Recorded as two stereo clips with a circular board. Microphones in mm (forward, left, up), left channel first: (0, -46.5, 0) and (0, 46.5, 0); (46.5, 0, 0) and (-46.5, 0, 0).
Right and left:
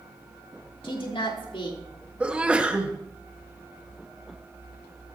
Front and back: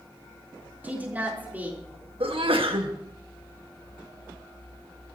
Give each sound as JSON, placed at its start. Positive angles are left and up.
{"t": 0.8, "sound": "a woman speaking", "azimuth_deg": -110, "distance_m": 4.0}
{"t": 2.2, "sound": "a sneeze", "azimuth_deg": 165, "distance_m": 1.7}